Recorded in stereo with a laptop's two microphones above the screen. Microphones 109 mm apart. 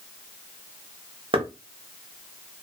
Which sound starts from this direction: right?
Knocking, at 1.3 s.